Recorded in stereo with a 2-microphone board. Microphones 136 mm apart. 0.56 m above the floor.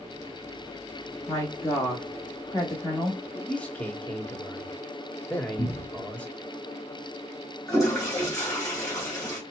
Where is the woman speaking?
25° left (ahead or behind), 0.9 m.